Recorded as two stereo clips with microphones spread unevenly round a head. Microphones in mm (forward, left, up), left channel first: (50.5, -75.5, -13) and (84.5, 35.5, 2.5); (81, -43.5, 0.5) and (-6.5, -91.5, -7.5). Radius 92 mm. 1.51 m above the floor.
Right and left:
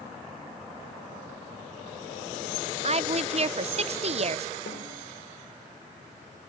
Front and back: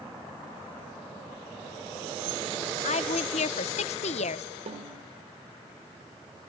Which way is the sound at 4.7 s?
135° right.